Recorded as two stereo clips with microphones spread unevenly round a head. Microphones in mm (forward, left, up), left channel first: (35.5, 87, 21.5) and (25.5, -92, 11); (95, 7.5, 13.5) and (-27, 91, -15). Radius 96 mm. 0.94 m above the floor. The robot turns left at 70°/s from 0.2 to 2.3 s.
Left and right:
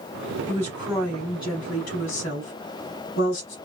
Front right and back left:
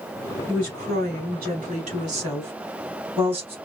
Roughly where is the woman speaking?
Behind right.